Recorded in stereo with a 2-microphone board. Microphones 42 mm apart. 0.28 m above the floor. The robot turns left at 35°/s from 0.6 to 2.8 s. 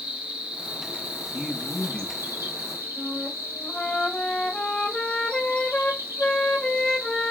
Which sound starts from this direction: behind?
A man speaking, at 1.3 s.